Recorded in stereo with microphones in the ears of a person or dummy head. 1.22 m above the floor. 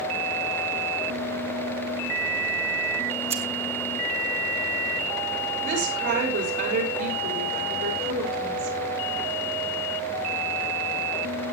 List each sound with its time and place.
3.3 s scissors: 30° right (ahead or behind), 1.4 m
5.6 s a woman speaking: 60° right (ahead or behind), 5.5 m